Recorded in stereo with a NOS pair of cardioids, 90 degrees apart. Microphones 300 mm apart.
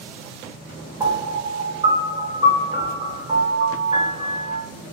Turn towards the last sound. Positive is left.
turn(degrees=-15)